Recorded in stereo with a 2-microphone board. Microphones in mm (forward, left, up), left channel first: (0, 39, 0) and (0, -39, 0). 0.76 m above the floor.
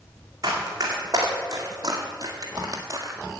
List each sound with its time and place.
0.4 s running footsteps: 45° right (ahead or behind), 3 m; by 3.1 s 40° right (ahead or behind), 1.2 m